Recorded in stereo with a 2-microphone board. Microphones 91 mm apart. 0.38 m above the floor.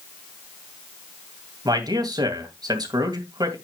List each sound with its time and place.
1.6 s a man speaking: 45° right (ahead or behind), 2.5 m